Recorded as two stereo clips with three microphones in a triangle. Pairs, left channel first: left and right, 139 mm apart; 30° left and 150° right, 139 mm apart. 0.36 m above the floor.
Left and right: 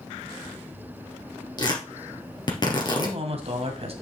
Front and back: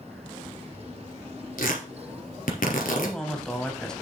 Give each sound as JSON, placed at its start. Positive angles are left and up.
{"t": 1.6, "sound": "tearing paper", "azimuth_deg": 30, "distance_m": 2.5}
{"t": 2.9, "sound": "a man speaking", "azimuth_deg": -55, "distance_m": 1.9}